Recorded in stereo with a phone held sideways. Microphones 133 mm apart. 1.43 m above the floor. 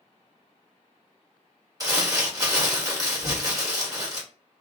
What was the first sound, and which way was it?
Crumpling, 25° right (ahead or behind).